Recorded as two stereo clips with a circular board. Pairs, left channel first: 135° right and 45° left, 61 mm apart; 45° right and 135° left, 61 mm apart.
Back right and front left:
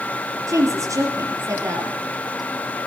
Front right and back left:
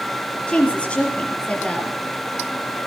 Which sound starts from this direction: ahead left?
A woman speaking, at 0.5 s.